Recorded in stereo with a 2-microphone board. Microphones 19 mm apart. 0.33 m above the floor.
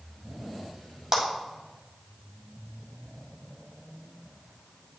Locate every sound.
1.1 s a clap: 20° right (ahead or behind), 1.9 m